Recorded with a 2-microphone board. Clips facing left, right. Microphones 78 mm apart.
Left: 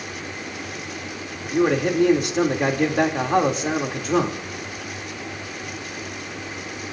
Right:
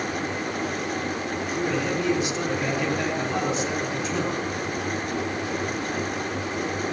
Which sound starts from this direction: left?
A man speaking, at 1.4 s.